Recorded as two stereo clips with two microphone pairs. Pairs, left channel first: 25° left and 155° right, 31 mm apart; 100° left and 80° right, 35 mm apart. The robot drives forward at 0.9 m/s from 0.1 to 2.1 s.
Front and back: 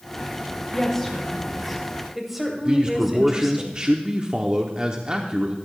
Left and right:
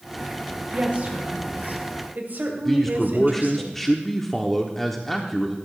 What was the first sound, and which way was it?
A woman speaking, 50° right.